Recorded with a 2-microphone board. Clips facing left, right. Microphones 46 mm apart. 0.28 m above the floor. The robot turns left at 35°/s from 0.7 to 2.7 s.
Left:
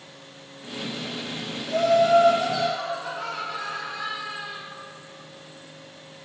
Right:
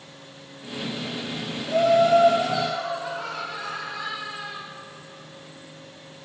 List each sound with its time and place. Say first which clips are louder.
1.7 s laughter: right 1 dB; 140° right, 1.7 m; by 4.6 s 175° right, 1.7 m